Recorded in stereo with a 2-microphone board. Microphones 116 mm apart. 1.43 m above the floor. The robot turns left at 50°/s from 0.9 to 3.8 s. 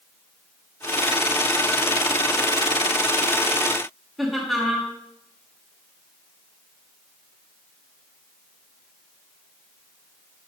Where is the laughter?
Centre (ahead or behind), 1.5 m.